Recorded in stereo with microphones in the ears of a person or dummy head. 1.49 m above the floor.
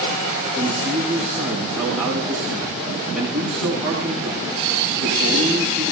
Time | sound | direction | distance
0.6 | a man speaking | 5° right (ahead or behind) | 4 m